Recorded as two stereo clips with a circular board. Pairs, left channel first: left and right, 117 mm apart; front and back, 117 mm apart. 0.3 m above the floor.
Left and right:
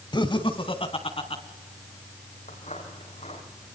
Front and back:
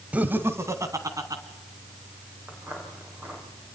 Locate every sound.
0.1 s laughter: 105° left, 1.3 m; by 1.4 s 125° left, 3 m
2.5 s footsteps: 105° left, 8 m